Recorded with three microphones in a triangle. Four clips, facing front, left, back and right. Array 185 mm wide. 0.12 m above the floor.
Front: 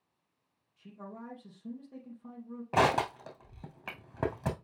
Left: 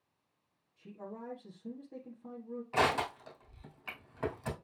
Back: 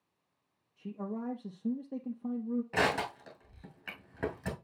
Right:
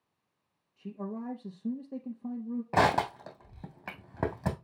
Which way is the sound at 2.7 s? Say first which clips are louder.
Right 5 dB, front 7 dB; 65° right.